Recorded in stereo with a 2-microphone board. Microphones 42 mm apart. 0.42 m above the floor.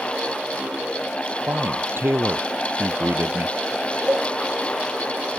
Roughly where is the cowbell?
Right.